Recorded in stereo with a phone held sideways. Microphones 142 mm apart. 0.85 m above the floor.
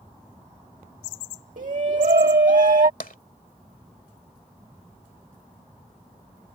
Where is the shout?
70° right (ahead or behind).